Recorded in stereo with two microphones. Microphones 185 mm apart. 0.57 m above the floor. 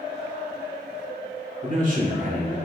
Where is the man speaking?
45° right (ahead or behind), 1.9 m.